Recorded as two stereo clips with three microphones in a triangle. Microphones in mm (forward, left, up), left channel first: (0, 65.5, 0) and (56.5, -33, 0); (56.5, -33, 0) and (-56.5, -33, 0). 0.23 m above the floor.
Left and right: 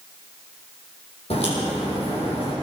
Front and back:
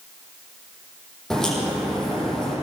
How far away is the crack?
About 9.5 m.